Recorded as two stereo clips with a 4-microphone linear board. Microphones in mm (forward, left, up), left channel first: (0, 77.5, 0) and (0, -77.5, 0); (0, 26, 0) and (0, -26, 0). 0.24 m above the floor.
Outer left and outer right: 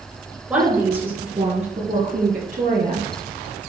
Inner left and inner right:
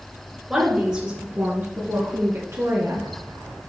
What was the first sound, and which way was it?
A woman speaking, 10° right (ahead or behind).